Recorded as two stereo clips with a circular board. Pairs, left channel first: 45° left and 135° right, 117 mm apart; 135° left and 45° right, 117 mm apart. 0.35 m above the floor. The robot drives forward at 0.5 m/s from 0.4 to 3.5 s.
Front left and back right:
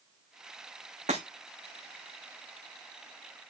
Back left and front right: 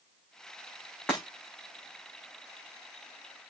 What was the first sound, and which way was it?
Breaking glass, 145° right.